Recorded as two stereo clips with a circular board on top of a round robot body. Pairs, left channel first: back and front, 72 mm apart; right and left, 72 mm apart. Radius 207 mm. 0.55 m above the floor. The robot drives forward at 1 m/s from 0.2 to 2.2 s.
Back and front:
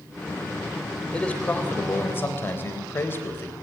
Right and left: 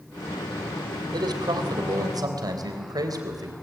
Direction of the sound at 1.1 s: 105° left.